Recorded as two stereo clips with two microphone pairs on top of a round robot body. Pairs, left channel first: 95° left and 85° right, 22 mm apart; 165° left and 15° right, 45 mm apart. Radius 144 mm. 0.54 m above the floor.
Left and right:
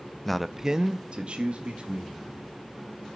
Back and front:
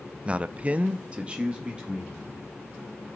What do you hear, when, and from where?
0.2 s a man speaking: 15° left, 0.6 m; by 2.4 s 90° right, 1.6 m